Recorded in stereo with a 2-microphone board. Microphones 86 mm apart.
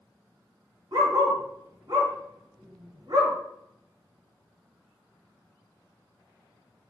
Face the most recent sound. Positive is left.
turn(degrees=-50)  # may be behind; listen again after turning